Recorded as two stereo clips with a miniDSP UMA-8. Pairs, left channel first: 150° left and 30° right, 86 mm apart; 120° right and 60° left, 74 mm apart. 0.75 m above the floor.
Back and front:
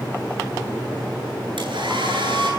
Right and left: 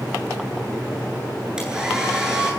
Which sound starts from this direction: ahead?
A hair dryer, at 1.6 s.